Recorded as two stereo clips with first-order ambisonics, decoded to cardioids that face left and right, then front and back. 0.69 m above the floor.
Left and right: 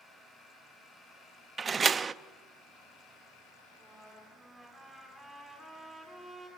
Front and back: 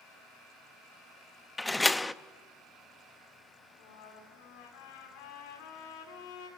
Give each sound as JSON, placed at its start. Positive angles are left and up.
{"t": 1.6, "sound": "a door slam", "azimuth_deg": -70, "distance_m": 0.5}
{"t": 3.7, "sound": "a trumpet", "azimuth_deg": 5, "distance_m": 9.0}